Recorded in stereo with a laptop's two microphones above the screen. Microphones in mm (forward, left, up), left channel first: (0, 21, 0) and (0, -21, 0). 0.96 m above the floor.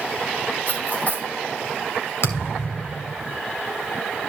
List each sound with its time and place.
0.7 s cutlery clinking: 40° left (ahead or behind), 4 m
2.2 s a thud: 85° left, 2.5 m